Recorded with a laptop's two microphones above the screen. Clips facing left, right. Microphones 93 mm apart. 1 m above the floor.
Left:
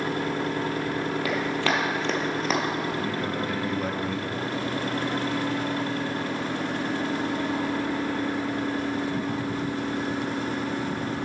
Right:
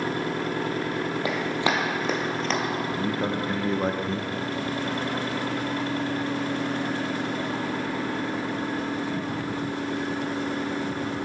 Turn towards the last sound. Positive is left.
turn(degrees=-30)  # may be behind; listen again after turning